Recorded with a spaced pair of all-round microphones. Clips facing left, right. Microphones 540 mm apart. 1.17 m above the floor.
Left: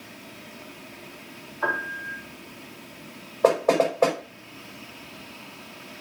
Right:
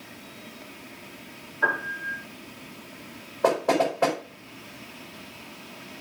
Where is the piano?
45° right (ahead or behind), 3 m.